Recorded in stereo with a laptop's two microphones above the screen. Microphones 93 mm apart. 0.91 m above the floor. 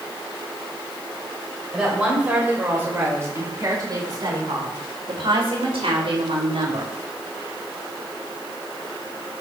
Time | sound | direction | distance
1.7 | a woman speaking | 10° right (ahead or behind) | 3.5 m